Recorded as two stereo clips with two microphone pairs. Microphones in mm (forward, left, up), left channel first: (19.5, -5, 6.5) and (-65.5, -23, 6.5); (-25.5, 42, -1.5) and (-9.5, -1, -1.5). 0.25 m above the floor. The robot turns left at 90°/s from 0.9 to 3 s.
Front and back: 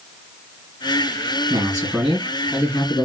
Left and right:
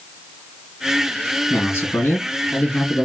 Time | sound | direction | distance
1.5 | a man speaking | 170° left | 2.5 m